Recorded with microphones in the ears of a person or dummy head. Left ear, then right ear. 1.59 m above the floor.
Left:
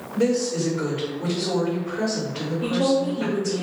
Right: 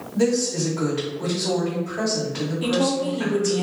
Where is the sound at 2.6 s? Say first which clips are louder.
Left 1 dB; 25° right (ahead or behind), 0.6 m.